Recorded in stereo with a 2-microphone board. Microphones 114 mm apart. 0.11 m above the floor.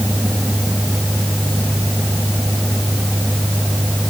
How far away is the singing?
No singing in this recording.